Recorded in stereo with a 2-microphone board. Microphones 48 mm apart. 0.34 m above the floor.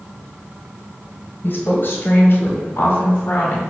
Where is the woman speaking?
50° left (ahead or behind), 1.3 m; by 3.6 s 45° left (ahead or behind), 1.8 m.